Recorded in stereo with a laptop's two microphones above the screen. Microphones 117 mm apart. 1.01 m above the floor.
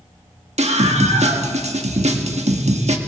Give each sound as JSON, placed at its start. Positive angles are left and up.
{"t": 0.6, "sound": "a scream", "side_deg": -75, "distance_m": 1.6}